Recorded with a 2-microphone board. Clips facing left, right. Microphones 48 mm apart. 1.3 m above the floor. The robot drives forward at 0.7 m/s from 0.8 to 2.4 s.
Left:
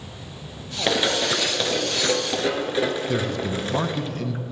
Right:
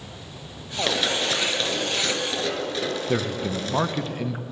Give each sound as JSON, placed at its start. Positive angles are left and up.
{"t": 0.9, "sound": "running footsteps", "side_deg": 15, "distance_m": 1.3}
{"t": 3.1, "sound": "a man speaking", "side_deg": -15, "distance_m": 0.6}